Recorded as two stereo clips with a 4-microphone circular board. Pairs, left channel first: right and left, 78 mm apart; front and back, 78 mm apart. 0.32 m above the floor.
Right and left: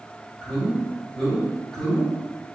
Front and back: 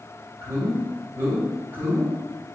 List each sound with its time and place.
0.4 s a man speaking: 165° right, 1.7 m